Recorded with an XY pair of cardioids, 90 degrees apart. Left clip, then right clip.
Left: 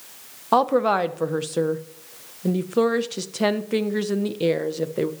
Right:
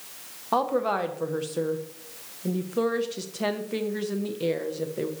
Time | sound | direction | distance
0.5 | a woman speaking | 55° left | 0.9 m